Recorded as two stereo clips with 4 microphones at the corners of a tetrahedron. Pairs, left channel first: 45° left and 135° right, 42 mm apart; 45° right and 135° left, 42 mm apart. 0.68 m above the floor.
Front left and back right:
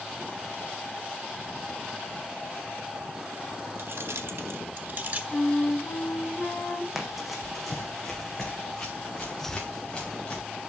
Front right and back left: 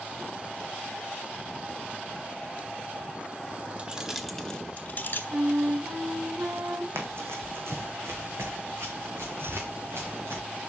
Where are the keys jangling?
165° right, 1.2 m; by 5.2 s 85° right, 1.3 m.